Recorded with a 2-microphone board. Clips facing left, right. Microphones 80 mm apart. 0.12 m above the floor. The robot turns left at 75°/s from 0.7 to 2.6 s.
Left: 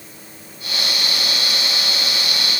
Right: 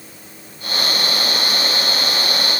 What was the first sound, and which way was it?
Only background noise.